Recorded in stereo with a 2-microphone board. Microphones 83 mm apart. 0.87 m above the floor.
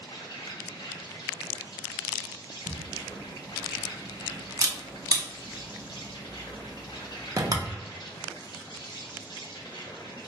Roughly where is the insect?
Left.